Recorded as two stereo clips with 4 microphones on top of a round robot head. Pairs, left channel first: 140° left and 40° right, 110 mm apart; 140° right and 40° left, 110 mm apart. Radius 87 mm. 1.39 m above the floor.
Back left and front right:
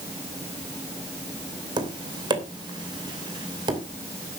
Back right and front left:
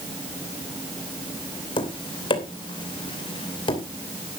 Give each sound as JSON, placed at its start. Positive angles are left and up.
{"t": 1.8, "sound": "tapping", "azimuth_deg": -90, "distance_m": 2.5}